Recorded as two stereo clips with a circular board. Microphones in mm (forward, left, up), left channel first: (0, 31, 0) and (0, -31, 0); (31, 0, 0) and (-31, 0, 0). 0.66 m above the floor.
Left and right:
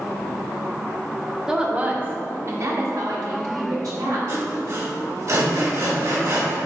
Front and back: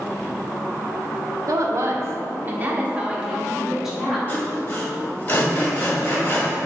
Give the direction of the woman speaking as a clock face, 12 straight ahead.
6 o'clock.